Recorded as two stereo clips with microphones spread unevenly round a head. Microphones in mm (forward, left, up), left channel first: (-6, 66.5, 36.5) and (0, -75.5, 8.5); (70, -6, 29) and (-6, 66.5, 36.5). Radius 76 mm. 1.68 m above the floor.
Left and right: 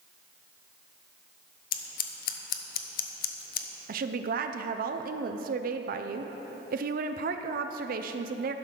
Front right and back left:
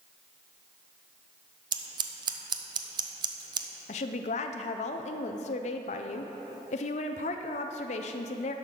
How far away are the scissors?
About 0.7 m.